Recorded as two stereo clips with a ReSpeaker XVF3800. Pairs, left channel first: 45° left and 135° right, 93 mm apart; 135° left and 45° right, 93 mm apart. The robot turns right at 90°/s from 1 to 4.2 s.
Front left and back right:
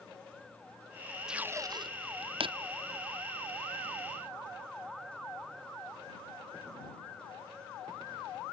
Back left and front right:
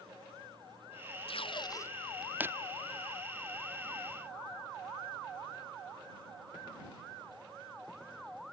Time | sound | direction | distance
1.3 | tape being pulled | 140° left | ?